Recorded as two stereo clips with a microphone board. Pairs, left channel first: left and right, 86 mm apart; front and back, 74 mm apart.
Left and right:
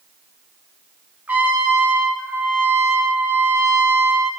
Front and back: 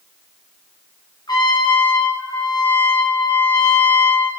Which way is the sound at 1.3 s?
20° right.